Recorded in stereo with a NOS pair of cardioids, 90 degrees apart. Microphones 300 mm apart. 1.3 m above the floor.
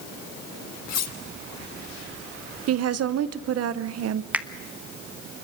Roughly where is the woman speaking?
Ahead right.